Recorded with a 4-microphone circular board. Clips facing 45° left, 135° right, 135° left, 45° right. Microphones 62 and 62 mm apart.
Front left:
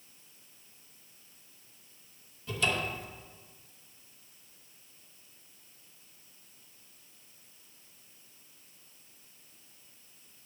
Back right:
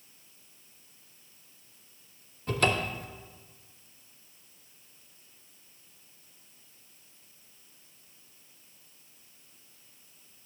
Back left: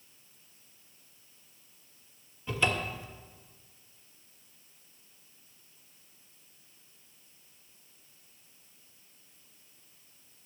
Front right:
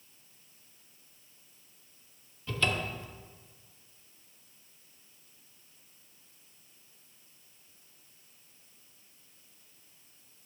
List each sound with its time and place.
2.5 s a cupboard door: 155° right, 0.8 m